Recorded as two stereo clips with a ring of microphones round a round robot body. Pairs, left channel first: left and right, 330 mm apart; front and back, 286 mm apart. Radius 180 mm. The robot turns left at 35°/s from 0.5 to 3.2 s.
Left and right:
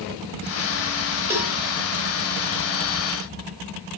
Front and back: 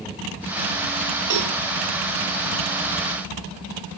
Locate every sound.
1.3 s a cowbell: 170° right, 2.5 m; by 1.5 s straight behind, 2.5 m